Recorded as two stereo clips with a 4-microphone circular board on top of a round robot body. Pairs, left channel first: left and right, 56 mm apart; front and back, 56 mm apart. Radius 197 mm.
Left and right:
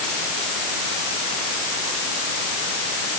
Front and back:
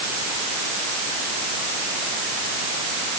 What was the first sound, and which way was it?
Only background noise.